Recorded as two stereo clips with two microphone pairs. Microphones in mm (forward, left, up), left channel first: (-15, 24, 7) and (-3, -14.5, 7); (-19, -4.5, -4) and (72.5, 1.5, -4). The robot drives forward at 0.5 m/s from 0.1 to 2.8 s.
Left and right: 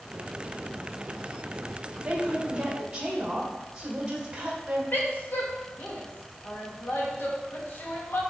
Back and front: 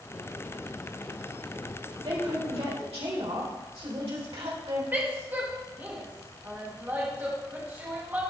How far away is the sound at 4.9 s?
About 1.6 m.